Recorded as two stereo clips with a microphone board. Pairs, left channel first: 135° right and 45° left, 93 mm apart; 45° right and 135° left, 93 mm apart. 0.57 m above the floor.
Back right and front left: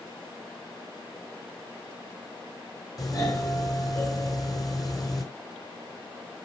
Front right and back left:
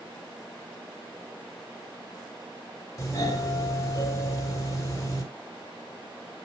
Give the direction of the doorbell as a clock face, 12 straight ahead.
3 o'clock.